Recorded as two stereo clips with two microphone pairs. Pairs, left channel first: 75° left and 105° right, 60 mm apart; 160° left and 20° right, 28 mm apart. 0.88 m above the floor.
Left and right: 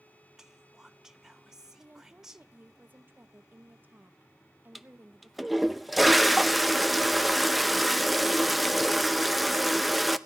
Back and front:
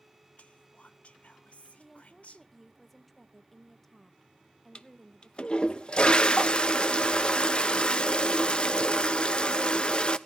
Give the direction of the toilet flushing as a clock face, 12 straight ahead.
7 o'clock.